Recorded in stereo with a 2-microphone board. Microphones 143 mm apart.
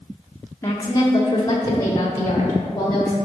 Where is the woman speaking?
20° left (ahead or behind), 1.0 m; by 3.1 s 35° left (ahead or behind), 2 m.